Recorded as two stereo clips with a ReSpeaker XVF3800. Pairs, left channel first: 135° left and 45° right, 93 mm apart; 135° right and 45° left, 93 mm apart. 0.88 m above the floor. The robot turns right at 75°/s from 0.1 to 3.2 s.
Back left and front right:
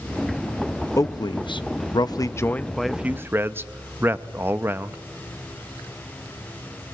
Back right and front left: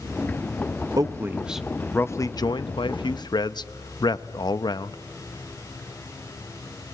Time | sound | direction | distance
1.0 | a man speaking | 85° left | 0.7 m